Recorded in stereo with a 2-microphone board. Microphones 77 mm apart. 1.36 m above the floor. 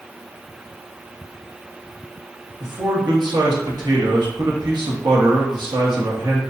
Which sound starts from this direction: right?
A man speaking, at 2.6 s.